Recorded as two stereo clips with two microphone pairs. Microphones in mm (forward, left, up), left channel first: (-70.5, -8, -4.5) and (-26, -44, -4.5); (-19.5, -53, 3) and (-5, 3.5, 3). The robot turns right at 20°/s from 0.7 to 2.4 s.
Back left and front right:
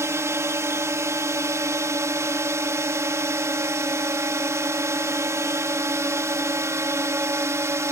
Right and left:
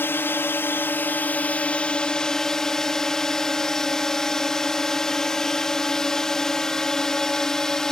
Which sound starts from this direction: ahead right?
A drone, at 0.0 s.